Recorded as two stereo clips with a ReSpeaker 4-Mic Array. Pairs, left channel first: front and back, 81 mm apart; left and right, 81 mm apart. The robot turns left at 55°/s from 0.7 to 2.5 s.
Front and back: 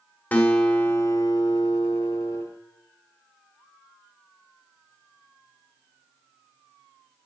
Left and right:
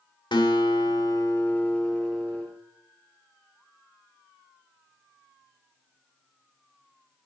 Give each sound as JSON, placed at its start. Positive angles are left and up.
{"t": 0.3, "sound": "a guitar", "azimuth_deg": 70, "distance_m": 1.3}